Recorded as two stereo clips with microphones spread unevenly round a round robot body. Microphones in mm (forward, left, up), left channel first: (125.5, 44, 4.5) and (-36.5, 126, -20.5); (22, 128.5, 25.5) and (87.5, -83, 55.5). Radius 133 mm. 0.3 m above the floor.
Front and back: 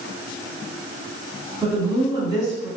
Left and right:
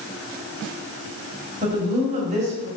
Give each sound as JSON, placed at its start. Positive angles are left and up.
{"t": 1.6, "sound": "a woman speaking", "azimuth_deg": -135, "distance_m": 2.5}